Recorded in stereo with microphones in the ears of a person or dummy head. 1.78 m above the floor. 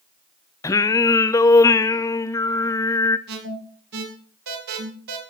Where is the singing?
15° left (ahead or behind), 0.6 m.